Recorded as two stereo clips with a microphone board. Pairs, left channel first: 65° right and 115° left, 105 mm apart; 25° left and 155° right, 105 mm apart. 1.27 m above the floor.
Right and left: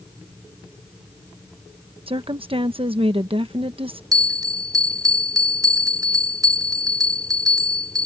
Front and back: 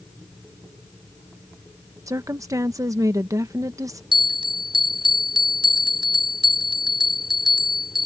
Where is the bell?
165° left.